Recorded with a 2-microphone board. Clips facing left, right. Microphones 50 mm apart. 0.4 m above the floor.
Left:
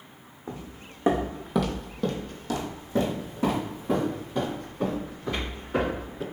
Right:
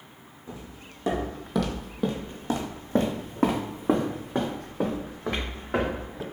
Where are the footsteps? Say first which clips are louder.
Left 3 dB; 45° left (ahead or behind), 1.1 m; by 6.2 s 75° right (ahead or behind), 3 m.